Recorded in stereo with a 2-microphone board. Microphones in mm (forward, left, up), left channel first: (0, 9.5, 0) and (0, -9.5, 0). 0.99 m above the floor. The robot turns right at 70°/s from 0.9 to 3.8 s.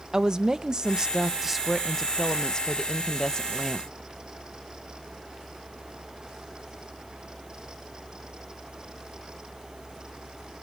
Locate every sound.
0.1 s a woman speaking: 50° right, 0.5 m; by 3.9 s 150° left, 0.5 m